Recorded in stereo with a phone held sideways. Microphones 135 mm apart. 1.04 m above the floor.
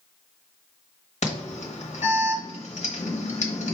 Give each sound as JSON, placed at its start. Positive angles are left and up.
{"t": 1.2, "sound": "an alarm", "side_deg": 55, "distance_m": 0.9}